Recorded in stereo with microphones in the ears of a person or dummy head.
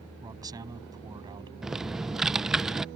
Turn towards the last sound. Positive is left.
turn(degrees=-5)  # may be behind; listen again after turning